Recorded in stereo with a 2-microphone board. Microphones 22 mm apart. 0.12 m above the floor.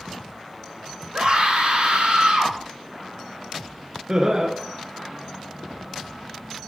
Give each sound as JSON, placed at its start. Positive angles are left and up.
{"t": 1.1, "sound": "a scream", "side_deg": -65, "distance_m": 5.0}
{"t": 4.1, "sound": "laughter", "side_deg": -30, "distance_m": 1.3}